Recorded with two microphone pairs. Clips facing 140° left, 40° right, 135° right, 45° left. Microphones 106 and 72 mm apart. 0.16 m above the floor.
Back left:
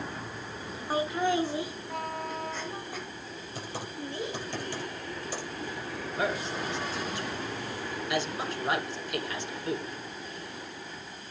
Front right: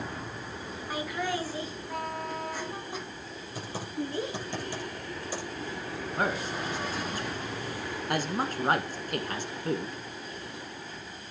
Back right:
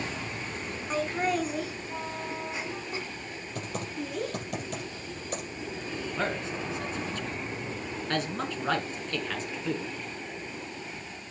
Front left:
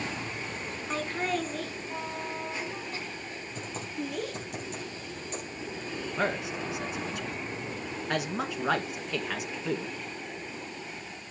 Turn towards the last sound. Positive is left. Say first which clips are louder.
# even, front left 2 dB
turn(degrees=-30)